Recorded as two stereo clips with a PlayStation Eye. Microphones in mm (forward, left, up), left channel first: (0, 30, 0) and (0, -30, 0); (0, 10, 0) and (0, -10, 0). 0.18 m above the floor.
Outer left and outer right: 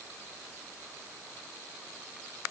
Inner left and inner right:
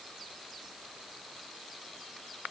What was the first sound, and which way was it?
Only background noise.